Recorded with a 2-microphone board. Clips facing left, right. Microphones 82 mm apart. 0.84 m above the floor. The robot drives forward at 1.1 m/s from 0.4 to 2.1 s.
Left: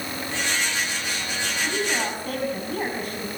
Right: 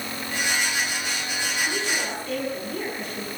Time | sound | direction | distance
1.6 | a woman speaking | 50° left (ahead or behind) | 6.5 m